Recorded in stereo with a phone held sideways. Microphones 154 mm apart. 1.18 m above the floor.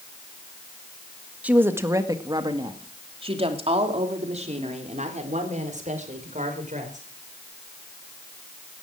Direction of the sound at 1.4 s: 10° right (ahead or behind).